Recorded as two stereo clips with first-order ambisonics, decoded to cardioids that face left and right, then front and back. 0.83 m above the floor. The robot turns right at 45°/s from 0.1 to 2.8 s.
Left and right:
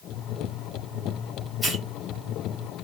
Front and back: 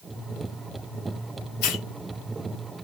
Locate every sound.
1.6 s a hiss: straight ahead, 1.1 m; by 1.9 s 15° left, 1.1 m